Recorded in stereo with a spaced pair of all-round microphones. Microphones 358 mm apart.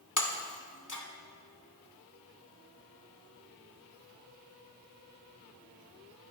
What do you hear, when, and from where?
0.2 s breaking glass: 50° left (ahead or behind), 1.7 m